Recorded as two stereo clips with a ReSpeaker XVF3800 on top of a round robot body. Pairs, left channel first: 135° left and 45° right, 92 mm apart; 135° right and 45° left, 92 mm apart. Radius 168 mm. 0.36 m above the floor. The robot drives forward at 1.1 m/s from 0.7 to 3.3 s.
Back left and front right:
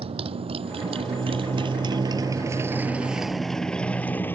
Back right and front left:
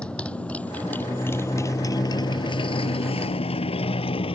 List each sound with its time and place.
0.0 s a motorcycle: 60° right; by 4.4 s 155° right